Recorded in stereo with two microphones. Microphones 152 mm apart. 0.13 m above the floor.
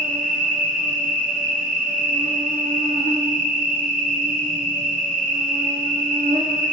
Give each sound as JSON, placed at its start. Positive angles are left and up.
{"t": 0.0, "sound": "an insect", "side_deg": -70, "distance_m": 1.0}